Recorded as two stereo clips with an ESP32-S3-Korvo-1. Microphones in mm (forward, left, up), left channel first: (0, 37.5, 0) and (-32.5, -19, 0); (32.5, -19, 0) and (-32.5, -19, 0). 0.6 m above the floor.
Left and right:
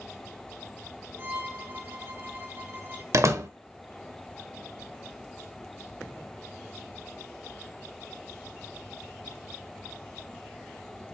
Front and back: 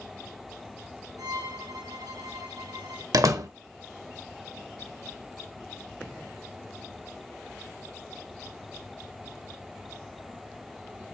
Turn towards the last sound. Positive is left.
turn(degrees=-155)